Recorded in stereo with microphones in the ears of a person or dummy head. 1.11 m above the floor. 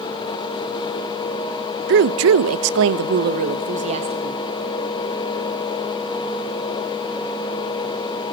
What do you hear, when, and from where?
1.9 s a woman speaking: 55° right (ahead or behind), 0.7 m; by 4.4 s 35° right (ahead or behind), 1.4 m